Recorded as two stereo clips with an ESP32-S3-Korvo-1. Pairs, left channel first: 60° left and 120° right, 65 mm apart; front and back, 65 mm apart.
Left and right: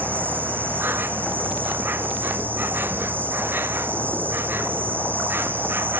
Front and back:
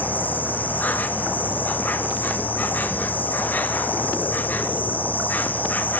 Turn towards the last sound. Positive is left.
turn(degrees=-60)